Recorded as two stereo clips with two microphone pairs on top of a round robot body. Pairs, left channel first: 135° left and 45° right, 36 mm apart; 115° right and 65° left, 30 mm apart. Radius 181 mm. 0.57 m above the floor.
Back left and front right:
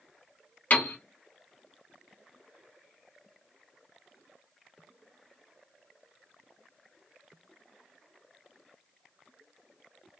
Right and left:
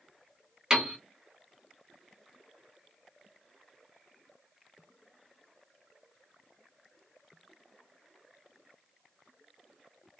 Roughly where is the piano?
Behind left.